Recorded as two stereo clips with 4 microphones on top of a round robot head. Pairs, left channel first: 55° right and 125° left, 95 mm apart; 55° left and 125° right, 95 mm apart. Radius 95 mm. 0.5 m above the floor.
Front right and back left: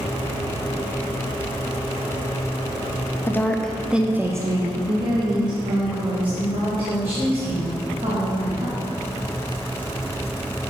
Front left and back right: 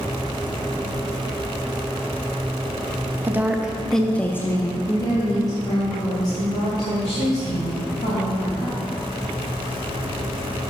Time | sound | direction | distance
3.3 | a woman speaking | 85° right | 0.8 m